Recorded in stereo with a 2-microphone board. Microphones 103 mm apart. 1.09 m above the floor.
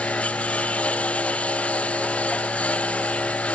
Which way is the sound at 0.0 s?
15° left (ahead or behind).